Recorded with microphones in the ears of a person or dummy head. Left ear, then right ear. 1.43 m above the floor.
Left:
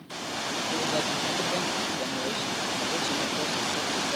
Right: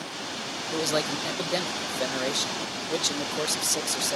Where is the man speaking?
75° right (ahead or behind).